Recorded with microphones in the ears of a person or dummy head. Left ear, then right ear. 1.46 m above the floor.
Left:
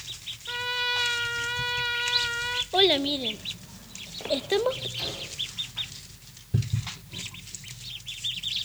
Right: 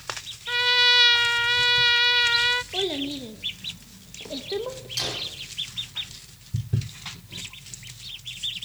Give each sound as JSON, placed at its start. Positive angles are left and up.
{"t": 0.5, "sound": "a trumpet", "side_deg": -30, "distance_m": 0.7}
{"t": 2.7, "sound": "a child speaking", "side_deg": 40, "distance_m": 0.9}
{"t": 5.0, "sound": "a gunshot", "side_deg": -70, "distance_m": 5.0}